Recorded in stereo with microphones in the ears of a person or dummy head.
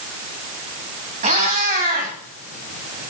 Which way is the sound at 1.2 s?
45° right (ahead or behind).